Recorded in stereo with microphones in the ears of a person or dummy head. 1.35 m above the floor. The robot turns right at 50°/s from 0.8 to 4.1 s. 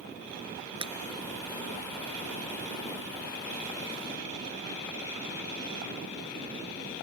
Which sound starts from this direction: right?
Breaking glass, at 0.8 s.